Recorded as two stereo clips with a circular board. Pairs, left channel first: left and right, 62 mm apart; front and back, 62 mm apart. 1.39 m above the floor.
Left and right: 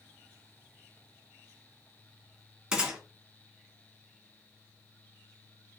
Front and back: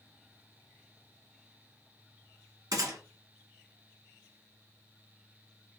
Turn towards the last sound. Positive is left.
turn(degrees=-170)